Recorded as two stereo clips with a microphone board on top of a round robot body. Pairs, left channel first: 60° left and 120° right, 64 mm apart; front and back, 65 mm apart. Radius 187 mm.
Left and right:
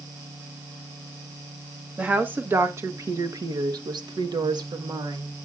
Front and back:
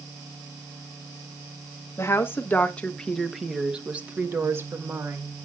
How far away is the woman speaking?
About 1.6 m.